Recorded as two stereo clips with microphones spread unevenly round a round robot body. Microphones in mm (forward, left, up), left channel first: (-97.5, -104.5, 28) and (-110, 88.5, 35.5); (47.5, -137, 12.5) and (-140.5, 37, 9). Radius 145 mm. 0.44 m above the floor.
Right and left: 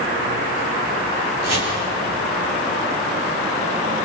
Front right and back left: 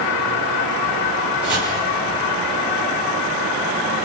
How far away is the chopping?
About 10 m.